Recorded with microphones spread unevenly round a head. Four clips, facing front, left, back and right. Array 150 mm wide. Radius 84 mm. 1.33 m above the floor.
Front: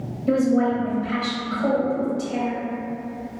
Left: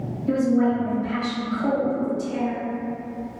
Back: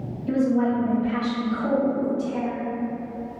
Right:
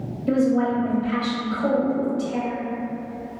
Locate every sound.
0.3 s a woman speaking: 40° right, 0.7 m